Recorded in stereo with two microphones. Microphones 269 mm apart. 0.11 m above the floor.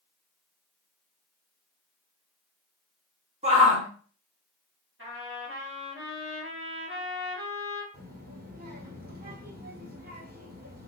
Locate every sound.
3.4 s a shout: 25° right (ahead or behind), 1.6 m
5.0 s a trumpet: 50° right (ahead or behind), 2.5 m
7.9 s a child speaking: 35° right (ahead or behind), 1.7 m